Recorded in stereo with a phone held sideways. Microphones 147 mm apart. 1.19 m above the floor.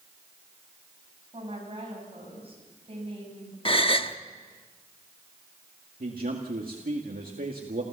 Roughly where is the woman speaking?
Right.